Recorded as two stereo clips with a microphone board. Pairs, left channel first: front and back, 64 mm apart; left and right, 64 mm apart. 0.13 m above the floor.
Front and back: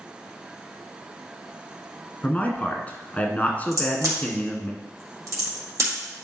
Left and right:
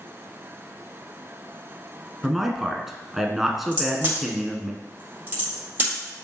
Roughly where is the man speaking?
Ahead.